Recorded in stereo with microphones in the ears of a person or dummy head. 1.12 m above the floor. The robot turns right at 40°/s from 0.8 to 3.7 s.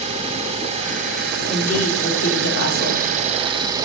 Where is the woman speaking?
40° left, 2.5 m; by 3.1 s 105° left, 2.5 m.